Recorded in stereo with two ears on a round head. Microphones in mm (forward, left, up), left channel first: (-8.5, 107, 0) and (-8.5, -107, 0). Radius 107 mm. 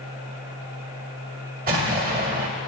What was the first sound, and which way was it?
An explosion, 40° right (ahead or behind).